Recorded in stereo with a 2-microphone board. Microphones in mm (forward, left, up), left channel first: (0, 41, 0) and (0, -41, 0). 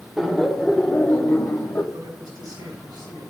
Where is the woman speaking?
60° right (ahead or behind), 5 m.